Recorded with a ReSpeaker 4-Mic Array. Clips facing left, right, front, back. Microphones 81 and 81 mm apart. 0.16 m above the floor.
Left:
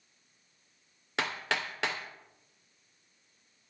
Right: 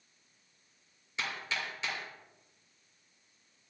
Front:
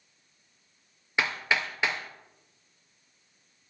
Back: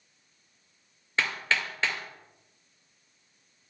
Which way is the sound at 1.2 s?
75° left.